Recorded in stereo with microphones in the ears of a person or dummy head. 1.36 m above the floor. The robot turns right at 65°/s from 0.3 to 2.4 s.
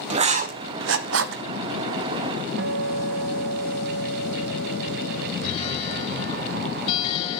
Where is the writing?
35° right (ahead or behind), 0.9 m; by 1.4 s 70° right (ahead or behind), 0.9 m.